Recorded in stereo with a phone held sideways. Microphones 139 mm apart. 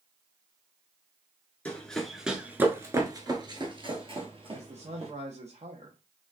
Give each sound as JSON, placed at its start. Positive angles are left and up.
{"t": 1.6, "sound": "running footsteps", "side_deg": 10, "distance_m": 1.1}
{"t": 4.5, "sound": "a man speaking", "side_deg": -55, "distance_m": 1.0}